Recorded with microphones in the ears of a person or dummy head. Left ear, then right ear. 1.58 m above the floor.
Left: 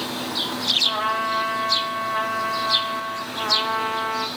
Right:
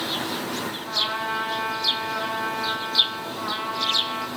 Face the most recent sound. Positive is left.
turn(degrees=15)  # may be behind; listen again after turning